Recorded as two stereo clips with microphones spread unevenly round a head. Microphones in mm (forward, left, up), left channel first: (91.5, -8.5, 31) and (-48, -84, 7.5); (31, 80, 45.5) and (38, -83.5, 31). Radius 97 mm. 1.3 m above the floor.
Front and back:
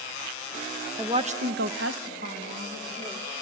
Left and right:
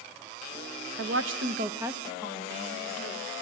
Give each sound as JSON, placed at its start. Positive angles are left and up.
{"t": 1.0, "sound": "a woman speaking", "azimuth_deg": -85, "distance_m": 1.2}